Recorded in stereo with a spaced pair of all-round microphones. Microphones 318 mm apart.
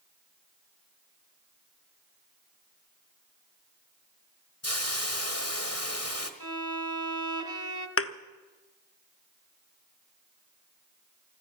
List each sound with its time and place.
4.6 s a hiss: 50° left (ahead or behind), 1.4 m
6.4 s a violin: 65° left (ahead or behind), 1.5 m
8.0 s a thud: 45° left (ahead or behind), 0.7 m